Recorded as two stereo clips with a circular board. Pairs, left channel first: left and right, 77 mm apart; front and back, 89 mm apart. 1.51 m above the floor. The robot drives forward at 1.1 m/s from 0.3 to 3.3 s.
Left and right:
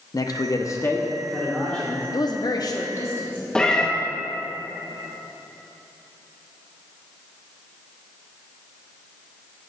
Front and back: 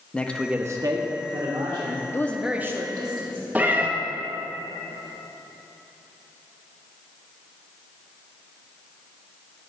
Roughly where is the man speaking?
Left.